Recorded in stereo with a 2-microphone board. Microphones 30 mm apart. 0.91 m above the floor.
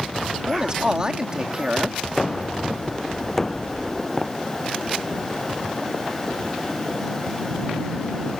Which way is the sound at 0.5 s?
25° right (ahead or behind).